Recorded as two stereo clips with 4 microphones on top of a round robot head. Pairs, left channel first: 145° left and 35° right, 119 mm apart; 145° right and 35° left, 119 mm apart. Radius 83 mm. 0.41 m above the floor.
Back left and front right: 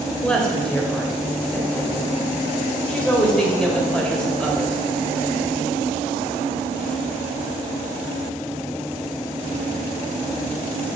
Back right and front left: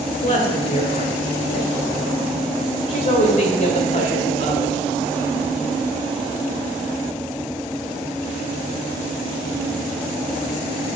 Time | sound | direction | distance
0.2 | a woman speaking | 135° right | 2 m